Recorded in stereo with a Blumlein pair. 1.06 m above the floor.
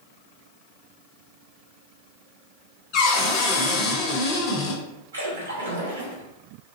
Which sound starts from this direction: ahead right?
A splash, at 5.1 s.